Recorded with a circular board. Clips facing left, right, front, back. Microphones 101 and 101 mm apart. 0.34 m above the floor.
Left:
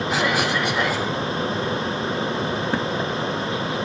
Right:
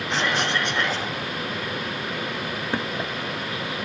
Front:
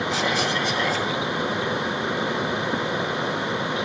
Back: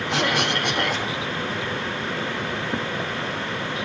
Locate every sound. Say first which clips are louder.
0.1 s a cough: left 2 dB, back 3 dB; 170° left, 3.5 m